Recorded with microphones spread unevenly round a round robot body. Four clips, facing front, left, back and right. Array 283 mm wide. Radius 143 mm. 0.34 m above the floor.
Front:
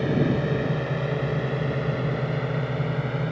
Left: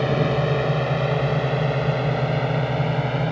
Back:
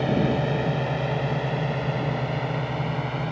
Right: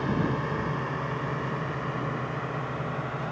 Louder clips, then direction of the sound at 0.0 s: Left 7 dB, even; 85° left.